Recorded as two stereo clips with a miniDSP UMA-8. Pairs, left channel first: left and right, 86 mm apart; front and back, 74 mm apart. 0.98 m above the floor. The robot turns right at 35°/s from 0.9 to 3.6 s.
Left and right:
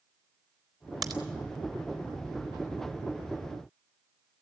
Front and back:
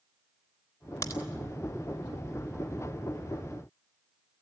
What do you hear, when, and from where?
1.0 s a crack: 50° right, 3.5 m; by 1.2 s 40° right, 3.5 m